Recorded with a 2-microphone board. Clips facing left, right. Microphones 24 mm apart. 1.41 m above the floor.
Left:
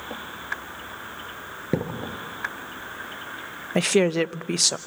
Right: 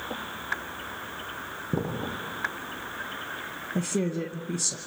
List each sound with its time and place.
1.7 s a thud: 85° left, 8.5 m
3.8 s a woman speaking: 70° left (ahead or behind), 0.6 m